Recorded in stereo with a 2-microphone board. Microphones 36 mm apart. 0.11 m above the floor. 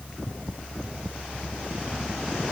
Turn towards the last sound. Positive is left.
No sound to turn to.